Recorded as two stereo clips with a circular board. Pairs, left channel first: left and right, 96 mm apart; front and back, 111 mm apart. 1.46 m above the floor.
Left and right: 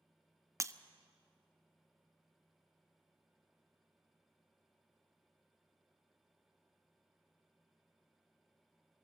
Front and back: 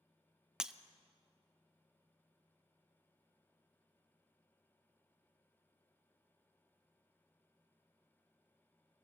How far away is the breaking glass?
About 0.6 m.